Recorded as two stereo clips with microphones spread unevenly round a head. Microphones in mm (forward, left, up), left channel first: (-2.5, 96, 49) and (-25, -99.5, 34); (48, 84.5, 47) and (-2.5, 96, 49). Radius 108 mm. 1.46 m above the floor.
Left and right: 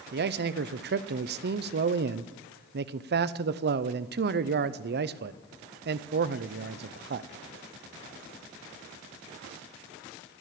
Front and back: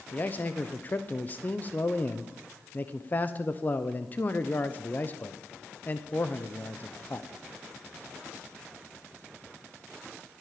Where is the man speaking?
70° right, 0.7 m.